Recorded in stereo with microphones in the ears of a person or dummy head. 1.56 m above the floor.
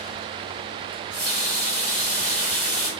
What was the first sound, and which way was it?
A running tap, 50° right (ahead or behind).